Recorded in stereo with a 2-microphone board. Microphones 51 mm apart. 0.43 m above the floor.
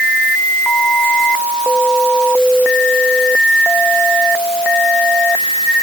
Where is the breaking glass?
No breaking glass in this recording.